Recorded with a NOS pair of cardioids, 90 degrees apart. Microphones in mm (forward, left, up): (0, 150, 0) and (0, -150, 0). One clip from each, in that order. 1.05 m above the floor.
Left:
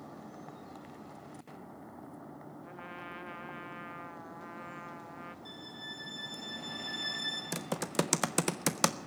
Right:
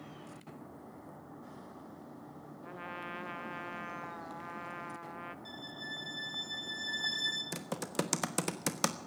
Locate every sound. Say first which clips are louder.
2.6 s a trumpet: right 3 dB; 15° right, 0.9 m
5.5 s a violin: right 1 dB; 10° right, 3.5 m
7.5 s typing on a keyboard: left 3 dB; 20° left, 1.0 m